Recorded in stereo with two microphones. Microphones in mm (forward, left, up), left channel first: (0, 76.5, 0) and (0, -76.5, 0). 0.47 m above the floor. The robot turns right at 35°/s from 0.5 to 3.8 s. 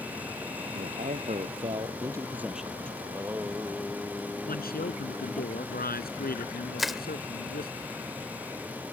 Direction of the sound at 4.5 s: 80° left.